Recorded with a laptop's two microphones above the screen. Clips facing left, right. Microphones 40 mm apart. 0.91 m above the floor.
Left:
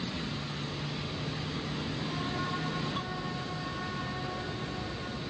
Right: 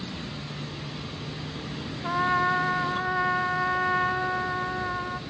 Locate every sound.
2.0 s a trumpet: 70° right (ahead or behind), 1.0 m